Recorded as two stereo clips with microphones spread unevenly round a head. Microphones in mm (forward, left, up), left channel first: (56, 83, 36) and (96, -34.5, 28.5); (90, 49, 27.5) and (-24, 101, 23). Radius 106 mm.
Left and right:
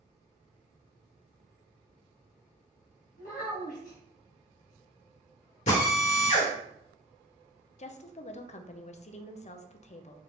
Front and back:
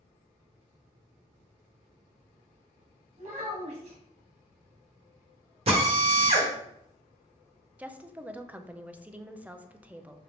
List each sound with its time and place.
3.2 s a child speaking: 125° left, 1.4 m
5.7 s a drill: 120° left, 1.2 m
7.8 s a woman speaking: 75° left, 0.5 m